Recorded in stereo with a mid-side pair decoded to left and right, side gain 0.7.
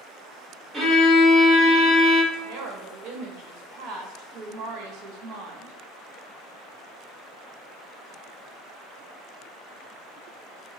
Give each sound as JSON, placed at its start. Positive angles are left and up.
{"t": 0.7, "sound": "a violin", "azimuth_deg": -20, "distance_m": 1.6}
{"t": 2.3, "sound": "a woman speaking", "azimuth_deg": -55, "distance_m": 1.5}